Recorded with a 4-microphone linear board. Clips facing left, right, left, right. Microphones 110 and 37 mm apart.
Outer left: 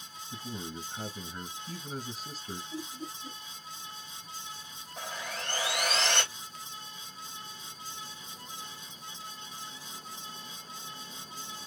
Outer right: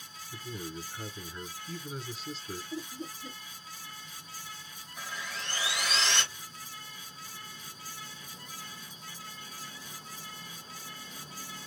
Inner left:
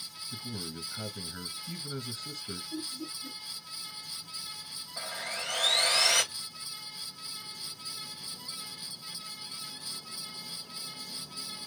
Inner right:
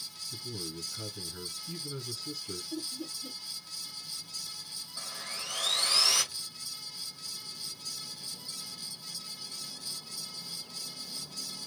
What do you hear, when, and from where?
0.3 s a man speaking: 45° left (ahead or behind), 2 m
2.7 s laughter: 30° right (ahead or behind), 1.3 m
5.0 s sawing: 60° left (ahead or behind), 2 m